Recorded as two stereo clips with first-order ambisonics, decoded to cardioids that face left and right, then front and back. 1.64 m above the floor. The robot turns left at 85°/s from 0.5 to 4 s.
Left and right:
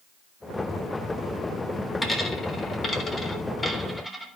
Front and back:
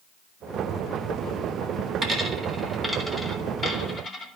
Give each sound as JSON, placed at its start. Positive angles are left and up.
{"t": 2.0, "sound": "a dropped coin", "azimuth_deg": 160, "distance_m": 0.9}